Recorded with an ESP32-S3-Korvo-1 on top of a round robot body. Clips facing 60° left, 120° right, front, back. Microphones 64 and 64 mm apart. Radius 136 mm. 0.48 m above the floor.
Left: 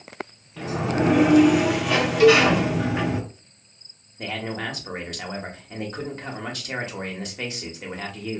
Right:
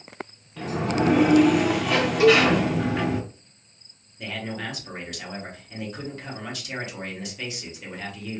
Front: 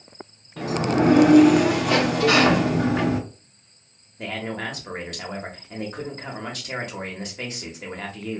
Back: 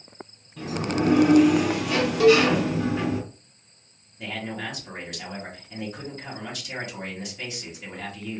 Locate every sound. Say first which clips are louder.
0.6 s a sliding door: left 1 dB, front 5 dB; 25° right, 0.6 m
2.2 s a cowbell: left 2 dB, back 4 dB; 170° left, 0.9 m
4.2 s a man speaking: left 3 dB, front 3 dB; 25° left, 1.0 m